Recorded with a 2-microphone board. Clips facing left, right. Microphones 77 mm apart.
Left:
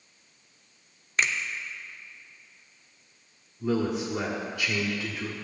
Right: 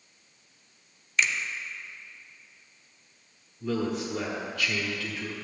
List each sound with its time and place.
1.2 s a finger snap: 40° left (ahead or behind), 0.7 m
3.6 s a man speaking: 20° left (ahead or behind), 1.4 m